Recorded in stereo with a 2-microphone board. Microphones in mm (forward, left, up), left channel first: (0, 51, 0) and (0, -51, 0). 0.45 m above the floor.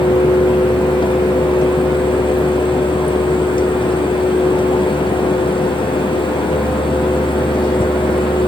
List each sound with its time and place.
Only background noise.